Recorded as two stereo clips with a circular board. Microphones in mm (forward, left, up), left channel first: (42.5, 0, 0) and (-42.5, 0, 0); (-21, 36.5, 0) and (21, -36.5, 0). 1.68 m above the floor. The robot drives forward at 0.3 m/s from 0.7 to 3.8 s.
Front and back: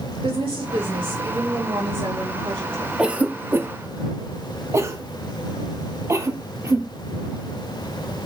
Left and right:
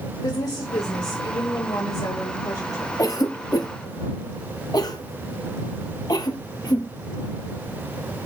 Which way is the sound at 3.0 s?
105° left.